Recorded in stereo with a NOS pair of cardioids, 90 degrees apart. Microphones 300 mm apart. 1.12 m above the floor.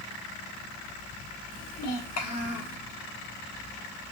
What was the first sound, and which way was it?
A child speaking, 55° left.